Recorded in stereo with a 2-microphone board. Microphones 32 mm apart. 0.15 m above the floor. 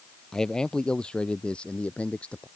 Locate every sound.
0.3 s a man speaking: 20° left (ahead or behind); by 2.5 s 40° left (ahead or behind)